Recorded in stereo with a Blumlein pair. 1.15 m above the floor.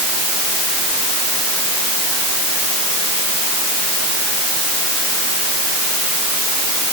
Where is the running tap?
I don't hear a running tap.